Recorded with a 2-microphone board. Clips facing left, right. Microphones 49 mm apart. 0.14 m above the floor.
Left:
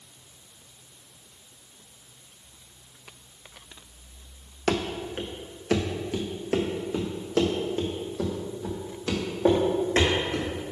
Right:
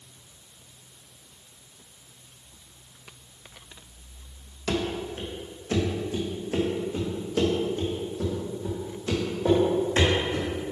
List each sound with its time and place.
4.7 s running footsteps: 60° left (ahead or behind), 1.2 m; by 10.5 s 70° left (ahead or behind), 3.5 m